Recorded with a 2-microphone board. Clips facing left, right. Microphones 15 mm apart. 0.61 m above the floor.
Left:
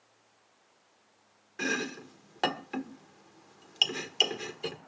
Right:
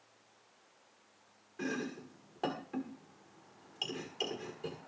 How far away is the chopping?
About 1.4 m.